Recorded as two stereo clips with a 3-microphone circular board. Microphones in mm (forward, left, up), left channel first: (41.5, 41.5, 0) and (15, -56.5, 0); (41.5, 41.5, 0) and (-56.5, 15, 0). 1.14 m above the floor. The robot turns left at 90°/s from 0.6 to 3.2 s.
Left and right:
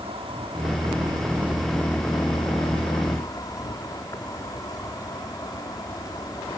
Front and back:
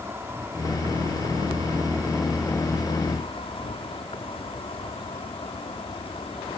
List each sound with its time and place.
0.0 s an insect: 100° right; by 6.6 s 25° left